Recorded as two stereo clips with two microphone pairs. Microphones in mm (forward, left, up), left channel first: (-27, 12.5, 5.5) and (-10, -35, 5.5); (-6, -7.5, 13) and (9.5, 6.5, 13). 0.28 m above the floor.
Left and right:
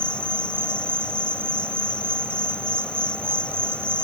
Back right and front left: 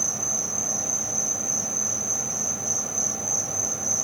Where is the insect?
110° left.